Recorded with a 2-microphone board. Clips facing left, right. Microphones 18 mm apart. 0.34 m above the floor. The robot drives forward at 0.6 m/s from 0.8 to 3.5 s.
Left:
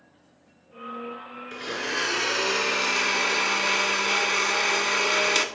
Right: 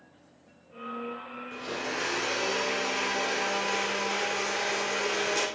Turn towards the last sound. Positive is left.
turn(degrees=80)